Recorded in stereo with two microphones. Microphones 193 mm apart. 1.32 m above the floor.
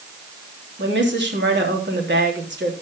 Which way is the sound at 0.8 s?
70° right (ahead or behind).